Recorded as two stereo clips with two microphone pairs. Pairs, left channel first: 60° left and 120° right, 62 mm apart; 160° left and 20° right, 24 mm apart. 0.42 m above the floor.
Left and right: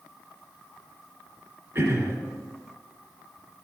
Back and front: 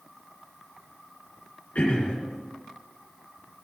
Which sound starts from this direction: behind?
Throat clearing, at 1.8 s.